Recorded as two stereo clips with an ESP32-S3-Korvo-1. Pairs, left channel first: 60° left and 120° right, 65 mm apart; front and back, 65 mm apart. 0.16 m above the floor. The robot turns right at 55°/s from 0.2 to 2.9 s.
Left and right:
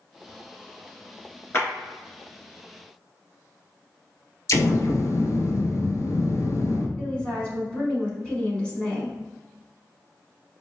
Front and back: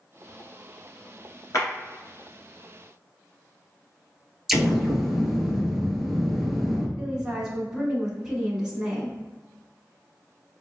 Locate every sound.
1.5 s a clap: 15° left, 1.7 m; by 1.7 s 20° left, 1.7 m
4.5 s an explosion: 90° left, 0.7 m
7.0 s a woman speaking: 120° left, 1.1 m